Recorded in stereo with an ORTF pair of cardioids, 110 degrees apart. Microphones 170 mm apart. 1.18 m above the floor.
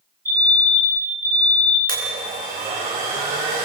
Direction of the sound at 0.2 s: 15° right.